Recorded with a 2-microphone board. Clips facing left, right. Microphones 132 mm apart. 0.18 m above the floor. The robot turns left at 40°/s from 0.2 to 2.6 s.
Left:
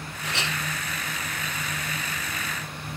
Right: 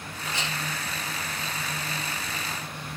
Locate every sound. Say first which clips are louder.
0.2 s a clink: left 2 dB; 75° left (ahead or behind), 5 m; by 0.6 s 60° left (ahead or behind), 5 m